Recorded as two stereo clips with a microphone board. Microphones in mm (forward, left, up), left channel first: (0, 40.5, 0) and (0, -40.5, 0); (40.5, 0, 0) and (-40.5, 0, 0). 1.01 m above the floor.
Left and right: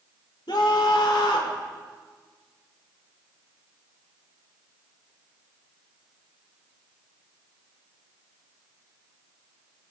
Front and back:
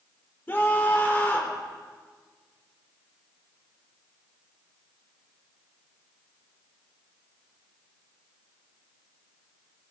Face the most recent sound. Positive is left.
turn(degrees=65)